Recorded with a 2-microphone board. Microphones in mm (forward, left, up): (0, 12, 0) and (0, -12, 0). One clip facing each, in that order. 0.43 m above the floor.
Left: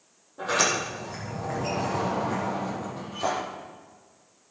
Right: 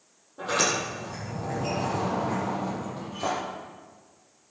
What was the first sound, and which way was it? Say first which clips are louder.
A sliding door: left 1 dB; centre (ahead or behind).